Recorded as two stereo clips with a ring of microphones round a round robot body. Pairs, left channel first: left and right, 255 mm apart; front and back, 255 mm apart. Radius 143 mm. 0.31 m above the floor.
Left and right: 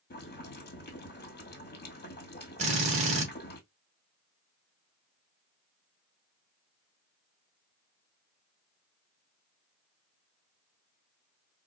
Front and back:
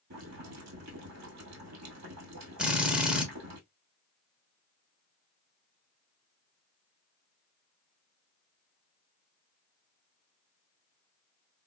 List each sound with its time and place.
0.1 s boiling: 145° left, 1.4 m
2.6 s a drill: 95° right, 1.0 m